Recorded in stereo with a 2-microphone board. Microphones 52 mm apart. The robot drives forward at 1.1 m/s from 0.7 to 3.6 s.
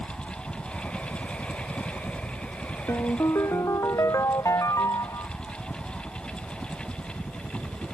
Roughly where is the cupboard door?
I don't hear a cupboard door.